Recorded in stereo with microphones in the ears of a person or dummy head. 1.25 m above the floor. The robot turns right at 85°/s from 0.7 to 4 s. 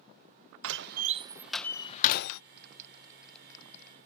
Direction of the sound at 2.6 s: 60° right (ahead or behind).